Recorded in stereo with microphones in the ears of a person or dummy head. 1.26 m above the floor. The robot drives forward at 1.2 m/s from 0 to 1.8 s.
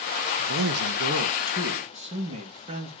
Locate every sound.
0.4 s a man speaking: 60° right (ahead or behind), 1.0 m; by 2.9 s 35° right (ahead or behind), 1.6 m